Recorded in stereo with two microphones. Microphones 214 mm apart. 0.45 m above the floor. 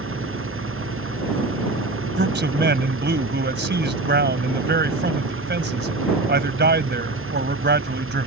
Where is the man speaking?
55° right (ahead or behind).